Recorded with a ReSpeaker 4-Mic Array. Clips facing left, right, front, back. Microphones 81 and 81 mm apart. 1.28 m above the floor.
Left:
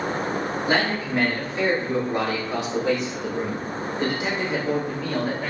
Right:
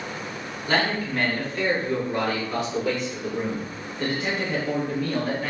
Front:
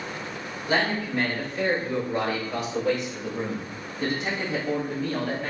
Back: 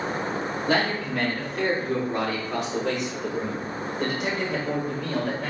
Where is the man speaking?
165° left, 3 m; by 5.5 s 160° left, 5 m.